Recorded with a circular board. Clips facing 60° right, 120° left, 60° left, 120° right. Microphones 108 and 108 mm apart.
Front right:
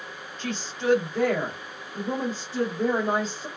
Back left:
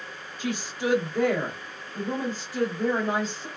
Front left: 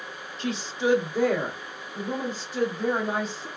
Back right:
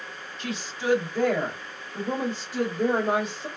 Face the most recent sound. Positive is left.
turn(degrees=-110)